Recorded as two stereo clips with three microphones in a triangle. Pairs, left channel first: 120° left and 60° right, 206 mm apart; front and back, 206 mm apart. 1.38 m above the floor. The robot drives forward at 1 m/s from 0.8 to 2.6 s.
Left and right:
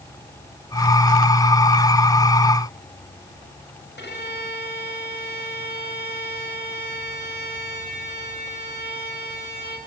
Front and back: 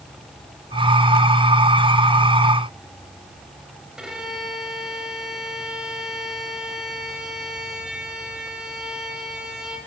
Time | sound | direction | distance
4.0 | a violin | 95° left | 4.5 m